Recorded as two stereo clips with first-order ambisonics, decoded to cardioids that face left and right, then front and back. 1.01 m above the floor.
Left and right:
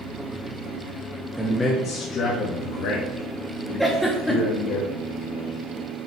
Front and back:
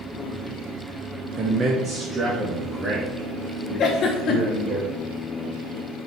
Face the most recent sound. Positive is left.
turn(degrees=5)